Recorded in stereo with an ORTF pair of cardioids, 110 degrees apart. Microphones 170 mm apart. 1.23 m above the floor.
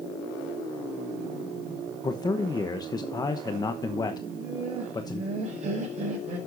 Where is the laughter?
40° right, 6 m.